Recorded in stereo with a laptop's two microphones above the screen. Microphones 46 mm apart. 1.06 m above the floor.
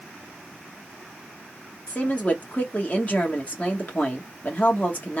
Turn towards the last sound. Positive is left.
turn(degrees=40)  # may be behind; listen again after turning